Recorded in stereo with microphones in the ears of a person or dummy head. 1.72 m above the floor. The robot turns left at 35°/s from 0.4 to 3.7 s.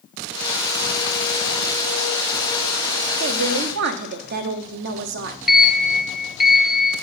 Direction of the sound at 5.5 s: Centre (ahead or behind).